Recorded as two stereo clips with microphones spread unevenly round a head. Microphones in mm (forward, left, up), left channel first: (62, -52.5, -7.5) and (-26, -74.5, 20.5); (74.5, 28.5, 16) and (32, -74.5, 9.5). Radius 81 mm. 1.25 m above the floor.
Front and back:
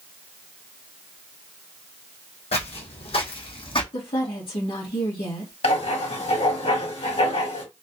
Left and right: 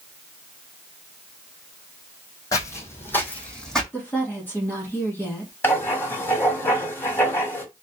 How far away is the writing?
About 2 m.